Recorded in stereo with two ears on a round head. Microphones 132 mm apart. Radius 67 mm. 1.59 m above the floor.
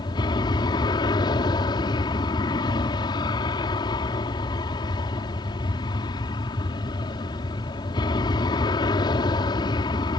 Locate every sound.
0.0 s an aircraft: 30° left (ahead or behind)